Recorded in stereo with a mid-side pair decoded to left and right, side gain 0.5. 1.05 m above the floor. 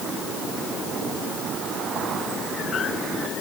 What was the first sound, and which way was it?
Only background noise.